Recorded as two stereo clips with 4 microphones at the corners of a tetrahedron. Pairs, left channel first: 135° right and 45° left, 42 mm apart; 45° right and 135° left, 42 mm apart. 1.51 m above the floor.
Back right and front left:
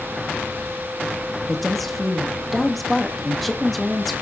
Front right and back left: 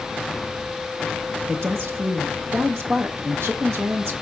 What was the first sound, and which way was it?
A woman speaking, 140° left.